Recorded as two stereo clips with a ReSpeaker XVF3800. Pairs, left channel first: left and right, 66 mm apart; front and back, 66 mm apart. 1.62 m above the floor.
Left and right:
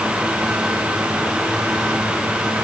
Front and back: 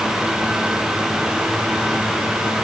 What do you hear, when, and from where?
Only background noise.